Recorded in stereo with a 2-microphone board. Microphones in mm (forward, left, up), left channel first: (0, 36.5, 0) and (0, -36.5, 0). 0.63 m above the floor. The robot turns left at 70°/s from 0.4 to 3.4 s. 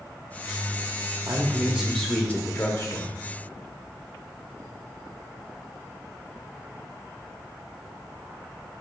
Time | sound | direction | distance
1.3 | a man speaking | 130° right | 0.9 m